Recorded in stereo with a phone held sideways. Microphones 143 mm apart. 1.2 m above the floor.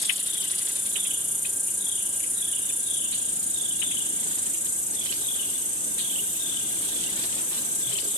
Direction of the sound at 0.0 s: 20° left (ahead or behind).